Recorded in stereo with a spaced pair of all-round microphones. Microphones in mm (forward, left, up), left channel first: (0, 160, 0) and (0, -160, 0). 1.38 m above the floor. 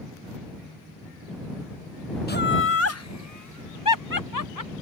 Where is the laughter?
30° left (ahead or behind); by 4.7 s 70° left (ahead or behind).